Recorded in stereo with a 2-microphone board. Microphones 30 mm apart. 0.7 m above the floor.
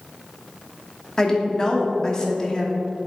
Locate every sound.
1.2 s a woman speaking: 20° left (ahead or behind), 1.2 m